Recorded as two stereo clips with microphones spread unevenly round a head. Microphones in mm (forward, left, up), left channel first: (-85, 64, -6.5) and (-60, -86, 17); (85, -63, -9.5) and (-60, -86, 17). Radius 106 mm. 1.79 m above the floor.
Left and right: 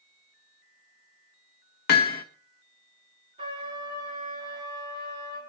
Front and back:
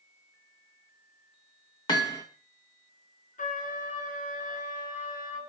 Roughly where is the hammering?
Left.